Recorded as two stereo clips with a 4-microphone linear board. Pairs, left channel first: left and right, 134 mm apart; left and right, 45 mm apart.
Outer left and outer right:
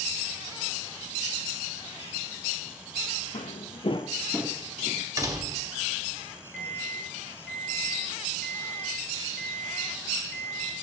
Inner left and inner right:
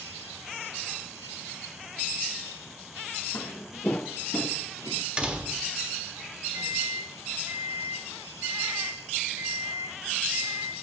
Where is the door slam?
25° right (ahead or behind), 1.2 m.